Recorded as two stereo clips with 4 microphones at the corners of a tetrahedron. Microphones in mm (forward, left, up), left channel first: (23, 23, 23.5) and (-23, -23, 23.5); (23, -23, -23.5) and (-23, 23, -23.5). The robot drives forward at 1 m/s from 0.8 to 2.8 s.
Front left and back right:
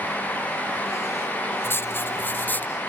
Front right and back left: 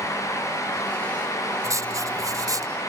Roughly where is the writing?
Left.